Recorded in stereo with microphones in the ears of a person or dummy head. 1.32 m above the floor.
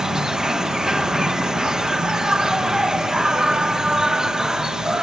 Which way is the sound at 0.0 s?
5° right (ahead or behind).